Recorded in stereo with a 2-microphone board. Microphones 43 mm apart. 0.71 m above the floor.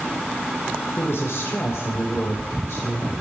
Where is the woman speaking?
70° left (ahead or behind), 3 m.